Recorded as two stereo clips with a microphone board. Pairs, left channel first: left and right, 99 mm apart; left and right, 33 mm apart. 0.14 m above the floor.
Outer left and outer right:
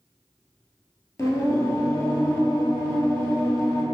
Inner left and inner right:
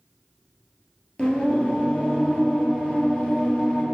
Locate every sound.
1.2 s singing: 35° left (ahead or behind), 1.6 m